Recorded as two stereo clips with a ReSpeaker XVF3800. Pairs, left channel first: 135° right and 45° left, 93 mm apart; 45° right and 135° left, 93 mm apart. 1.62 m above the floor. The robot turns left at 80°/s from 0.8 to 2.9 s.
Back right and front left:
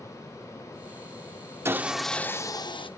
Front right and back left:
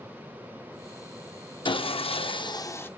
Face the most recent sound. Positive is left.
turn(degrees=-115)